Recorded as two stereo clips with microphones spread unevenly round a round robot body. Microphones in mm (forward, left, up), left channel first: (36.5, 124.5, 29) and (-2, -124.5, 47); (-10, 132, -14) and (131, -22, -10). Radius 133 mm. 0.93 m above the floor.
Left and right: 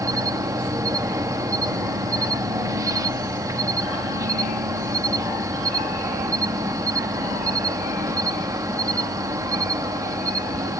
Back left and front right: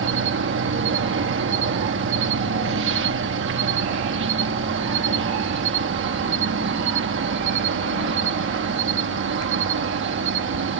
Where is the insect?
20° right.